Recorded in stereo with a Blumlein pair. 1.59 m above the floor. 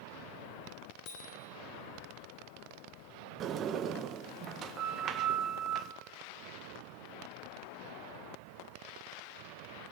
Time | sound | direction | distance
1.1 | a bicycle bell | 40° left | 10 m
3.4 | a sliding door | 30° right | 1.6 m